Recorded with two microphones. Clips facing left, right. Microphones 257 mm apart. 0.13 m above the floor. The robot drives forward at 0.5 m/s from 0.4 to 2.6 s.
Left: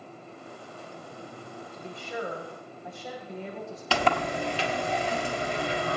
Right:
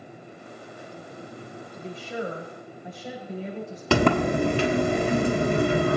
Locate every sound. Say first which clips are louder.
1.7 s a woman speaking: right 3 dB; 20° right (ahead or behind), 7 m; by 3.8 s 15° right (ahead or behind), 7 m
3.9 s a sliding door: right 8 dB; 55° right (ahead or behind), 1.0 m